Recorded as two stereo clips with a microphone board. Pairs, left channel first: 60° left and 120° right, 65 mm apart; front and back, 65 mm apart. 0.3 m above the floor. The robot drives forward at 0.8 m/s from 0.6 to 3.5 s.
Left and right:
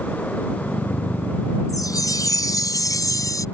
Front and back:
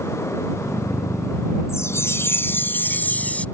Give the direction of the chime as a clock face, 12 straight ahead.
11 o'clock.